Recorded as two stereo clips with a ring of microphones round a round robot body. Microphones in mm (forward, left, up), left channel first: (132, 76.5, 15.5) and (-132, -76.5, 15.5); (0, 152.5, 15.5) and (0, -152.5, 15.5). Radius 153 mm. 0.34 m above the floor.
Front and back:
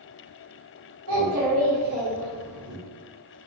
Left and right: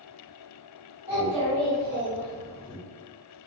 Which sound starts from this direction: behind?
A child speaking, at 1.1 s.